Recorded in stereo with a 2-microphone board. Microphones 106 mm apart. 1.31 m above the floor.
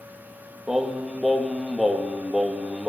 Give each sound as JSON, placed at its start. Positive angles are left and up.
{"t": 0.7, "sound": "singing", "side_deg": -5, "distance_m": 1.9}